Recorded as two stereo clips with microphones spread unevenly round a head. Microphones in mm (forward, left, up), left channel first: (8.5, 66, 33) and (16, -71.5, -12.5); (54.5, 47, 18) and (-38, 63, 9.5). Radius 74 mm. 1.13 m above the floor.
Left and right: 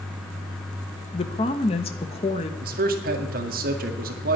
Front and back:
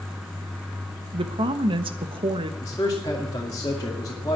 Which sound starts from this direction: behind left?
A woman speaking, at 1.1 s.